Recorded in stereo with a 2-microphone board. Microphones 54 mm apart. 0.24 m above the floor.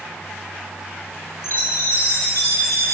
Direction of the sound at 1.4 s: 60° left (ahead or behind).